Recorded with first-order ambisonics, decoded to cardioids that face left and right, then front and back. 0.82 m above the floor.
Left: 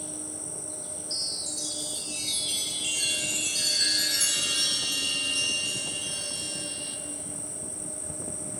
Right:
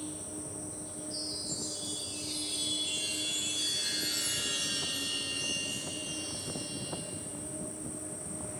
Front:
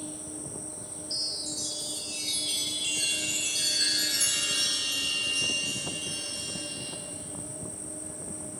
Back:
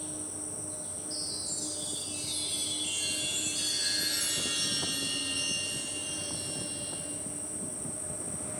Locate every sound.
0.0 s an insect: 95° left, 4.5 m
1.1 s a chime: 60° left, 2.5 m